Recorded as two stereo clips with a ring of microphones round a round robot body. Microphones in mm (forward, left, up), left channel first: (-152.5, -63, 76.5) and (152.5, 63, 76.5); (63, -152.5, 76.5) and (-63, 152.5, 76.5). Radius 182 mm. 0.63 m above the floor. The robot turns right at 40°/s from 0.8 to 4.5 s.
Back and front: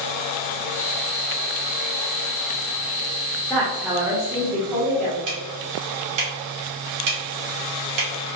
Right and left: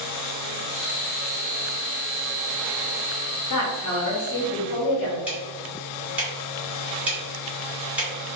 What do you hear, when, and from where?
3.5 s a woman speaking: 75° right, 1.4 m; by 5.2 s 35° right, 1.4 m
5.3 s ticking: 25° left, 1.9 m